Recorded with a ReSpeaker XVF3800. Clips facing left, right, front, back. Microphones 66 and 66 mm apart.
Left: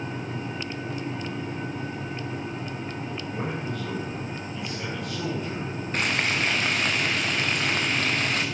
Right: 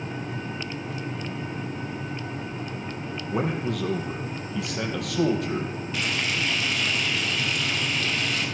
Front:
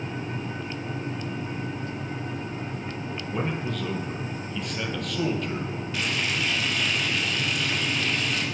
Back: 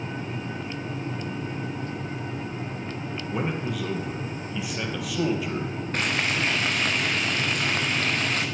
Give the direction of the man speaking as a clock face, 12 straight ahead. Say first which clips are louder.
Right 7 dB, back 1 dB; 3 o'clock.